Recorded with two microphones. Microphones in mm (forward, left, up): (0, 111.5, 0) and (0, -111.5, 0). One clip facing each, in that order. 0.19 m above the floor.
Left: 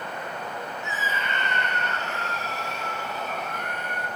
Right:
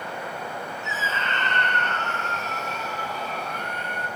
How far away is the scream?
About 2.0 m.